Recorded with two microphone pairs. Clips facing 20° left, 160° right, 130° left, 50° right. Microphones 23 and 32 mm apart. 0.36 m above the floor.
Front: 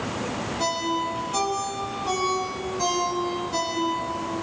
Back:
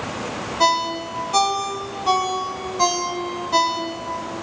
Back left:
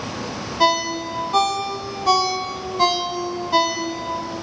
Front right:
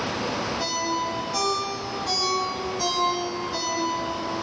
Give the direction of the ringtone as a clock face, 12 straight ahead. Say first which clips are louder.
Back 7 dB, back left 12 dB; 7 o'clock.